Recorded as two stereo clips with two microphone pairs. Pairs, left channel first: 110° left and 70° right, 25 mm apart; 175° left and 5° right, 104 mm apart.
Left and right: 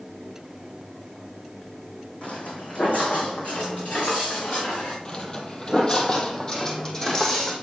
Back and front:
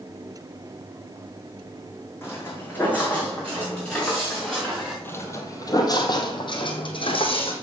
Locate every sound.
2.2 s footsteps: 110° left, 3 m; by 5.0 s 90° left, 5.5 m
5.0 s footsteps: 125° left, 1.6 m; by 7.5 s 170° left, 3 m